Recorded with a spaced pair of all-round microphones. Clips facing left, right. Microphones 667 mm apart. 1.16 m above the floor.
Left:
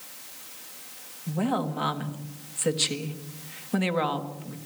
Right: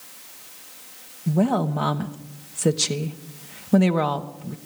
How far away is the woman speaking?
About 1.3 m.